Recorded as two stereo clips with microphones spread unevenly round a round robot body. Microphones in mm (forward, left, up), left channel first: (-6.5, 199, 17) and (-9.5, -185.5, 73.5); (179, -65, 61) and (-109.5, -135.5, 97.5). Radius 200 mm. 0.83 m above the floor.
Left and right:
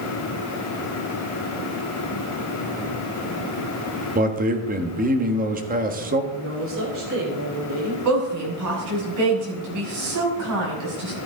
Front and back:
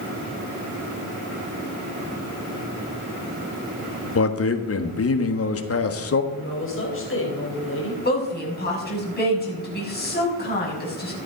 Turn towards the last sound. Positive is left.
turn(degrees=-45)